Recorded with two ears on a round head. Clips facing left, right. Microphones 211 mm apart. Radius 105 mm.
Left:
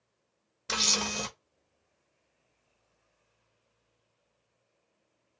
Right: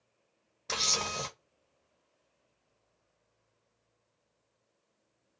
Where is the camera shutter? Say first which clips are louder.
Left 3 dB; 15° left (ahead or behind), 1.0 m.